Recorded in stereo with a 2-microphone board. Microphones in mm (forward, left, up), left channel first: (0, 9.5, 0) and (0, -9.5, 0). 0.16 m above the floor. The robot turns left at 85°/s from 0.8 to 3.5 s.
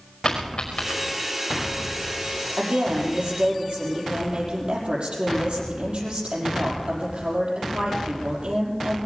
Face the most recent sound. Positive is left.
turn(degrees=-115)